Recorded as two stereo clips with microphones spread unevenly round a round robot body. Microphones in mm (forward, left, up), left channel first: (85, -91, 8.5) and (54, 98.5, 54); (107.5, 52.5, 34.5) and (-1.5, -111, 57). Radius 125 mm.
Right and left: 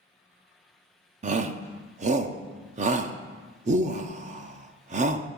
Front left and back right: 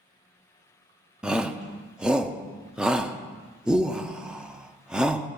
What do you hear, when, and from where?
1.2 s a shout: 140° left, 0.7 m